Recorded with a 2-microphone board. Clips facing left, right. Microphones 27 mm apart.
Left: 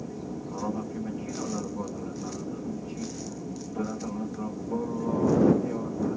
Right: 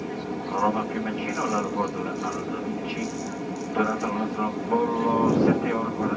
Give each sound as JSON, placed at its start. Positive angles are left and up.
{"t": 0.0, "sound": "an aircraft", "side_deg": -70}